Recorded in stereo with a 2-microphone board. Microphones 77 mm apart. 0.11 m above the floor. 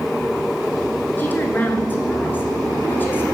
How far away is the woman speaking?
About 1.2 m.